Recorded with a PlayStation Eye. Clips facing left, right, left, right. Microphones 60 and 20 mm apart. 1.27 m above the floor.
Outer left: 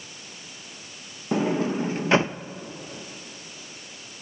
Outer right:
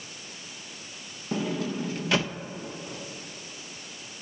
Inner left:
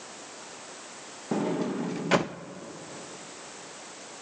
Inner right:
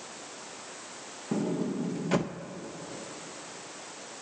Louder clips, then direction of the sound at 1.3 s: Outer left 6 dB, inner left 2 dB; 30° left (ahead or behind).